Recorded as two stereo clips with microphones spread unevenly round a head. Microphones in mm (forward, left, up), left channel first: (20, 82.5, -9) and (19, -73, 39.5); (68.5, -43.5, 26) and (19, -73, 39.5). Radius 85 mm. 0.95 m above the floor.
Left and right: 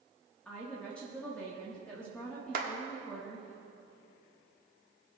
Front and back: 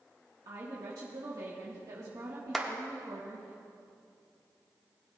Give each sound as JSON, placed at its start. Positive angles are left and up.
{"t": 0.5, "sound": "a woman speaking", "azimuth_deg": 165, "distance_m": 1.3}
{"t": 2.5, "sound": "a clap", "azimuth_deg": -60, "distance_m": 1.5}